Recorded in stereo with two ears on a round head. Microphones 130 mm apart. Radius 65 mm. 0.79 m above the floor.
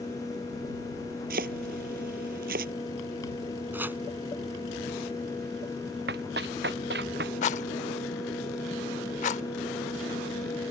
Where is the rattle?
50° left (ahead or behind).